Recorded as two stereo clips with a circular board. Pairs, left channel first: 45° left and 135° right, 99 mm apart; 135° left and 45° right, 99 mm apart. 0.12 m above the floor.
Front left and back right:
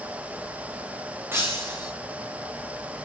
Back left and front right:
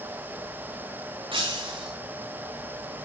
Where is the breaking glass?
70° right, 5 m.